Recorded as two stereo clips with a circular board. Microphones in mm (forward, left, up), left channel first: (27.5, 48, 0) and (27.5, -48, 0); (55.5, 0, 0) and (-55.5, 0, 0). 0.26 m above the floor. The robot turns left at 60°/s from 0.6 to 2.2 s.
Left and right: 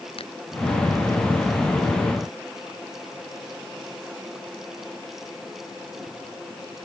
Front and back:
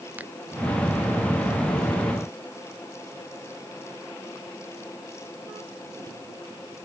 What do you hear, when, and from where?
0.2 s a finger snap: 105° left